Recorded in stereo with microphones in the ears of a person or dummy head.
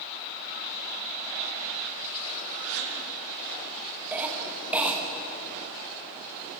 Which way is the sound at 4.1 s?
5° right (ahead or behind).